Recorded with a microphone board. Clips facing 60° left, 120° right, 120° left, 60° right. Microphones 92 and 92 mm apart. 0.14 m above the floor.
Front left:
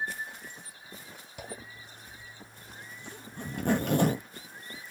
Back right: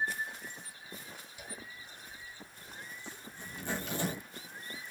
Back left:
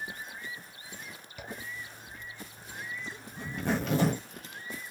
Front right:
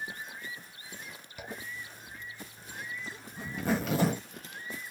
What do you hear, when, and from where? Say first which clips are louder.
1.4 s a zipper: front left 7 dB, even; 30° left, 0.6 m